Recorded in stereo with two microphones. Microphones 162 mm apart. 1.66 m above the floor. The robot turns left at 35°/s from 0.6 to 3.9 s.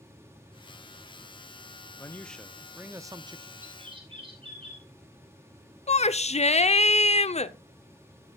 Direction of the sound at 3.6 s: 45° right (ahead or behind).